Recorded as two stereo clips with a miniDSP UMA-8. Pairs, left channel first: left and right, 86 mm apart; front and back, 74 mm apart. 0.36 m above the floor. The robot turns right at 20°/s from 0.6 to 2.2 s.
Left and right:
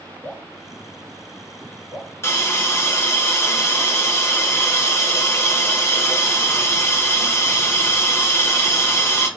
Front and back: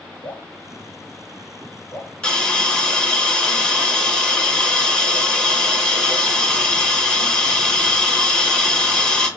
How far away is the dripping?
About 1.6 m.